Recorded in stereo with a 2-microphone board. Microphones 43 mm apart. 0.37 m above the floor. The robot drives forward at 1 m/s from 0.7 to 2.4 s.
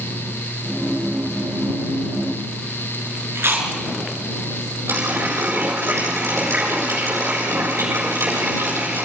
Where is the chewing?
65° right (ahead or behind), 5 m.